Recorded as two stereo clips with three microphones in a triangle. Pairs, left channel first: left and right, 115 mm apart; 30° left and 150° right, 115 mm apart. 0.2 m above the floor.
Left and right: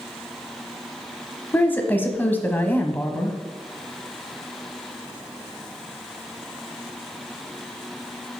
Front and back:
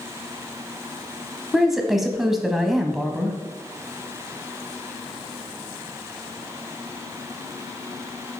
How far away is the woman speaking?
About 1.0 m.